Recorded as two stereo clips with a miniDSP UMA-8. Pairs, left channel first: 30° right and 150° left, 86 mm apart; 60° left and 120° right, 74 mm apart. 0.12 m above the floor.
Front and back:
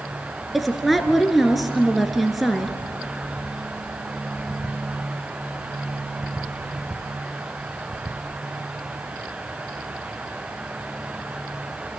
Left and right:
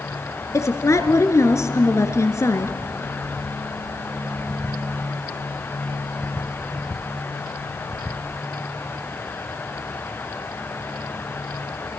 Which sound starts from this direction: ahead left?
A woman speaking, at 0.5 s.